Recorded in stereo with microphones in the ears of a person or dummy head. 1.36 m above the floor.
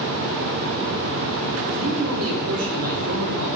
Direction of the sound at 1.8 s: 65° right (ahead or behind).